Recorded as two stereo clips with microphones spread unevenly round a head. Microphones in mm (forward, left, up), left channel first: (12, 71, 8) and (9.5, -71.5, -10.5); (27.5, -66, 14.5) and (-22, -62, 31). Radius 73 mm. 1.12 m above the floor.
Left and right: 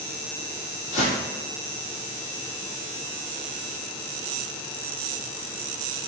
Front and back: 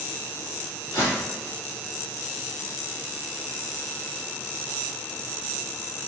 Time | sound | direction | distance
0.9 | footsteps | 75° left | 2.0 m